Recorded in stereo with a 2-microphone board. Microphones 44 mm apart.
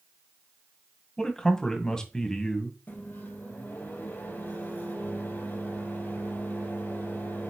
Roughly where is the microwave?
Left.